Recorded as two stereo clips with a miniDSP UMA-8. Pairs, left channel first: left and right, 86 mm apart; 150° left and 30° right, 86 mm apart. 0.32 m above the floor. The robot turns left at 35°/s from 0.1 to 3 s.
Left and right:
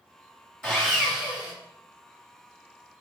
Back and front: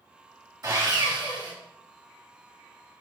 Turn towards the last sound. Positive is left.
turn(degrees=-70)